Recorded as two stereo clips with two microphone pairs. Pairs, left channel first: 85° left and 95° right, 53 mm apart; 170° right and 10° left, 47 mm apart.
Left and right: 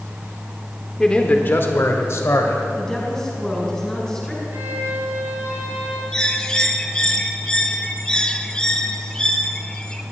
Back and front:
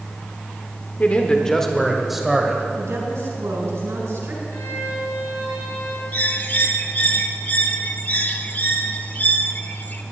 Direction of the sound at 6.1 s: 150° left.